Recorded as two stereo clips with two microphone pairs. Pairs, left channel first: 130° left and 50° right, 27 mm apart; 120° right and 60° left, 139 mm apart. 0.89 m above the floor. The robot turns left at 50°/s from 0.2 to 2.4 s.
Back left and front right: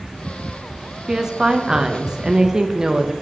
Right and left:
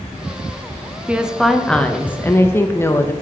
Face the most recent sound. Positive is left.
turn(degrees=-75)